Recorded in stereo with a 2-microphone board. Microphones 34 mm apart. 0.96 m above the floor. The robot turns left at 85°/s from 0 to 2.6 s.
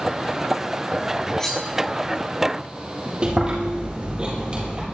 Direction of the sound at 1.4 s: 15° left (ahead or behind).